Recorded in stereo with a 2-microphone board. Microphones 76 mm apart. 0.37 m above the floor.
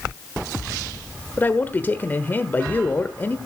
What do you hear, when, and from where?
1.4 s a man speaking: 25° left (ahead or behind), 1.2 m